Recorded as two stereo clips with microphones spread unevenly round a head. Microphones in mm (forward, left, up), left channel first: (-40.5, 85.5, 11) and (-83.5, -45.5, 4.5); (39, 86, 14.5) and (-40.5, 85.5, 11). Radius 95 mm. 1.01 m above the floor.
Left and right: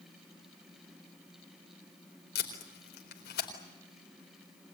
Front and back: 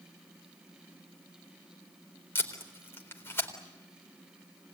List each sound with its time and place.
2.4 s tape being pulled: 60° left, 4 m